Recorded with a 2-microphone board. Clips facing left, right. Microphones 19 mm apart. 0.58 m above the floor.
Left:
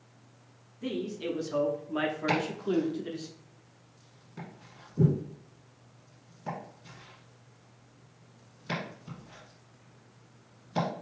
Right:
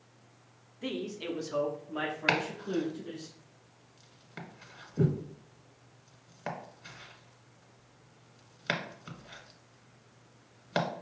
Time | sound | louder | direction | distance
0.8 | a man speaking | left 2 dB | 25° right (ahead or behind) | 0.8 m
2.3 | chopping | right 2 dB | 70° right (ahead or behind) | 1.4 m